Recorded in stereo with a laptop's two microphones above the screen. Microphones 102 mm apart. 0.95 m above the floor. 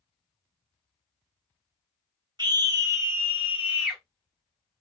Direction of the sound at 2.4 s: 40° right (ahead or behind).